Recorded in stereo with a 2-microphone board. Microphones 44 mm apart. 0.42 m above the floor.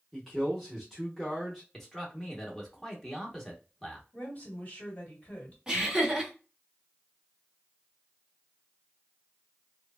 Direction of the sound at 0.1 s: 5° left (ahead or behind).